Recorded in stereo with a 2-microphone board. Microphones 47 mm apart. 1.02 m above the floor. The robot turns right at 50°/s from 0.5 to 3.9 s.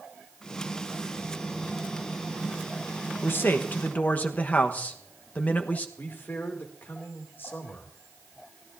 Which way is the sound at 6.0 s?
50° left (ahead or behind).